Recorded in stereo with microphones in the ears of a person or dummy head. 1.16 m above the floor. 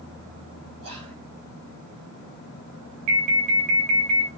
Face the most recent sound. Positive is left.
turn(degrees=-25)  # may be behind; listen again after turning